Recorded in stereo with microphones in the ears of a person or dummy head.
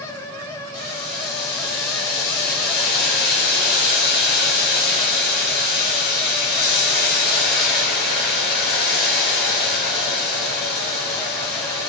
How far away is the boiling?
About 3 m.